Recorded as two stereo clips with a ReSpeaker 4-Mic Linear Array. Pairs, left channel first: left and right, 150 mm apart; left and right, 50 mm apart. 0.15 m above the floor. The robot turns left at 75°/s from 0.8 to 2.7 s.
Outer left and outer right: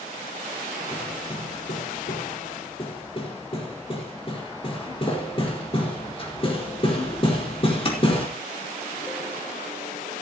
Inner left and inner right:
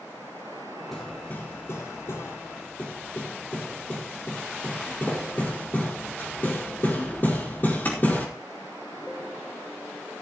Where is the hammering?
5° left (ahead or behind), 4.5 m; by 8.3 s 40° left (ahead or behind), 4.5 m.